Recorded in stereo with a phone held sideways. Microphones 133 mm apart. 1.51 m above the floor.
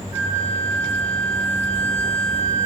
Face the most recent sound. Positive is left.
turn(degrees=70)  # may be behind; listen again after turning